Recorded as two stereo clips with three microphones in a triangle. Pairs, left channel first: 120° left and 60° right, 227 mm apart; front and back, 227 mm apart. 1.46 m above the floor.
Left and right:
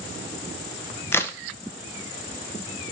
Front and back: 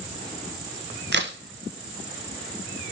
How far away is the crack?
About 0.6 m.